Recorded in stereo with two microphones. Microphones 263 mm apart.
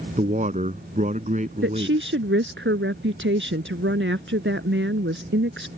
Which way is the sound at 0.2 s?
30° right (ahead or behind).